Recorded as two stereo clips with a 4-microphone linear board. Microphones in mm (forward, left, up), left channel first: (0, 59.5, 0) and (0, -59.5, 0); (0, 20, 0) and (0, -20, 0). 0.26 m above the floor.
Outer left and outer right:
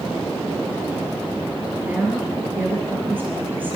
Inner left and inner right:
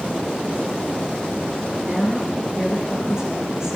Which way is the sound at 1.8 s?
15° right (ahead or behind).